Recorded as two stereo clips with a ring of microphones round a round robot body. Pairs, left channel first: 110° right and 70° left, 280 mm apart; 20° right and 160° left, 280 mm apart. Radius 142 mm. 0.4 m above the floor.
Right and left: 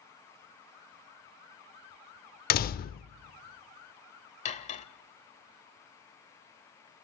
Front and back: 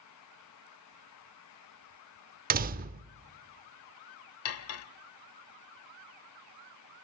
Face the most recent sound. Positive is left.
turn(degrees=-50)